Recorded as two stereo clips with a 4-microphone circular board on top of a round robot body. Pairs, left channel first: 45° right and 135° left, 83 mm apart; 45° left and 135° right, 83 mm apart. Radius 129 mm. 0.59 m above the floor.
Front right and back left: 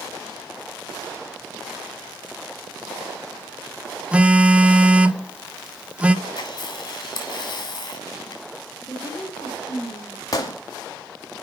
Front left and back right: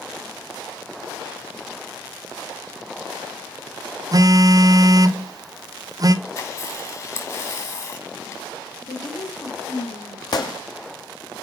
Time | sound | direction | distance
4.1 | a phone buzzing | 155° right | 0.9 m
6.2 | a camera shutter | 5° right | 2.5 m
8.8 | a woman speaking | 15° left | 2.5 m
10.3 | a gunshot | 5° left | 1.6 m